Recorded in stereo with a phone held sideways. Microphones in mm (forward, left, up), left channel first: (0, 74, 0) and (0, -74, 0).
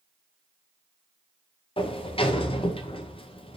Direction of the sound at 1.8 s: 40° left (ahead or behind).